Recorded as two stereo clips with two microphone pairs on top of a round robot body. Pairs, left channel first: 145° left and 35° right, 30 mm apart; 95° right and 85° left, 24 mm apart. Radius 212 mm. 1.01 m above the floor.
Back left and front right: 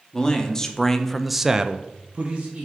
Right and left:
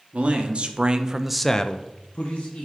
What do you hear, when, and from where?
0.1 s a man speaking: 85° left, 1.1 m; by 2.6 s 90° right, 0.9 m